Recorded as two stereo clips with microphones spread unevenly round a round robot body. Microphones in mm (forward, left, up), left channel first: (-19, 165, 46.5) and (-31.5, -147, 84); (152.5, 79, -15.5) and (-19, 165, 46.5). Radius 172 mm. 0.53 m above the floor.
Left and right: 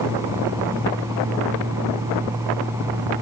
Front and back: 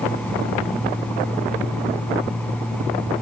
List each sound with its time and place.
Only background noise.